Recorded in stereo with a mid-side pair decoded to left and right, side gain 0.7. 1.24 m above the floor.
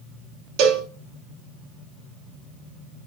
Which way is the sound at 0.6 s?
65° right.